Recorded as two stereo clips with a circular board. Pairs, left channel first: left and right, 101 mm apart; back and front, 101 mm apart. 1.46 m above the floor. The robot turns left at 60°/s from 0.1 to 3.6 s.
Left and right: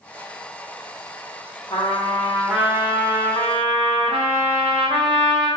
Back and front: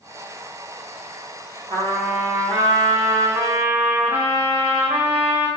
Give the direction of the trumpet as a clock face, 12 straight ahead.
11 o'clock.